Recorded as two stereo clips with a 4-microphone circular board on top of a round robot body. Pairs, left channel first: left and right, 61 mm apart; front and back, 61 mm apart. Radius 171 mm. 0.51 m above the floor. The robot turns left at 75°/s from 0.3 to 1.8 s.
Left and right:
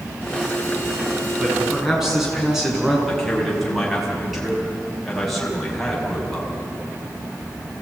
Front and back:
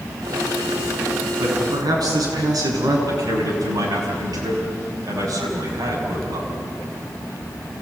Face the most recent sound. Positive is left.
turn(degrees=180)